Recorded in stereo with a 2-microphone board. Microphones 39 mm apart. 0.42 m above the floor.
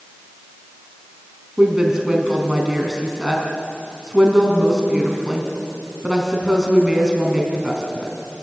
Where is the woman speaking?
15° right (ahead or behind), 4 m.